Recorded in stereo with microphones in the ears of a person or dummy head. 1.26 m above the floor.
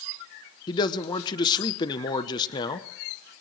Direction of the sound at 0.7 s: 25° left (ahead or behind).